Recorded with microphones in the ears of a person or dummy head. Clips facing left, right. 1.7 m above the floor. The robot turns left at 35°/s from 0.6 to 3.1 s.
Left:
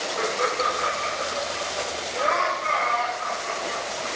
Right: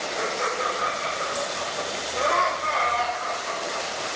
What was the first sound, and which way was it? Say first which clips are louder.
Laughter: left 3 dB; 55° left (ahead or behind).